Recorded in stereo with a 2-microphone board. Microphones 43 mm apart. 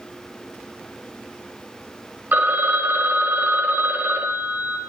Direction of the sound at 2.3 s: 50° right (ahead or behind).